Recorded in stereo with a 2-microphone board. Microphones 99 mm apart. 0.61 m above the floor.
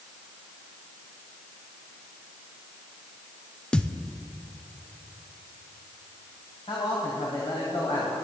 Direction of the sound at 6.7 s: 60° left (ahead or behind).